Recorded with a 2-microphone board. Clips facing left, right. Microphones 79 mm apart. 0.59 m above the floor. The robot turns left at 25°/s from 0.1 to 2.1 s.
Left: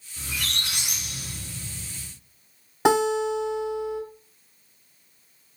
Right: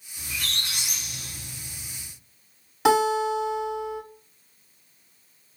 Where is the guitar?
30° left (ahead or behind), 1.9 m.